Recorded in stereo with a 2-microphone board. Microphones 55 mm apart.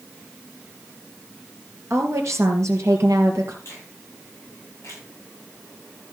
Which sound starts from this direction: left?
A finger snap, at 3.6 s.